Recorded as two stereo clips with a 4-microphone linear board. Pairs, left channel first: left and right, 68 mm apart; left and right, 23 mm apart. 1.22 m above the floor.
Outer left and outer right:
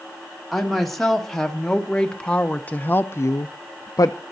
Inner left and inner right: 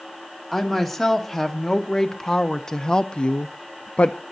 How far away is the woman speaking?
About 2 m.